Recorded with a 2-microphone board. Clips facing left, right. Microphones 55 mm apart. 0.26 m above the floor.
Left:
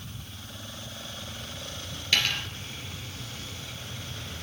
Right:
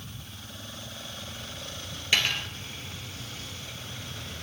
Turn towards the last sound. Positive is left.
turn(degrees=-15)  # may be behind; listen again after turning